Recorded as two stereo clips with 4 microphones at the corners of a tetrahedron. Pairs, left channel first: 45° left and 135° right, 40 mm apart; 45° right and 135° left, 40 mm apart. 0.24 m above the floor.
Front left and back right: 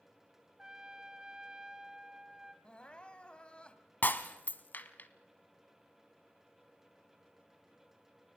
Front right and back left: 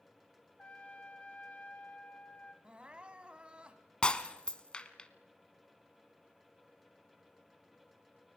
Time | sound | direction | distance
0.6 | a trumpet | 75° right | 1.5 m
2.6 | crying | 90° left | 1.2 m
4.0 | breaking glass | 15° left | 1.2 m